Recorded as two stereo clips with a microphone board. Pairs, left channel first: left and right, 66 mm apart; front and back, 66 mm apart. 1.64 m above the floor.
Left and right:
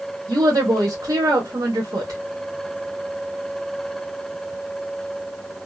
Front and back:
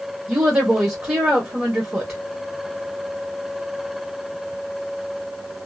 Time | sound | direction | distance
0.3 | a woman speaking | 125° right | 1.2 m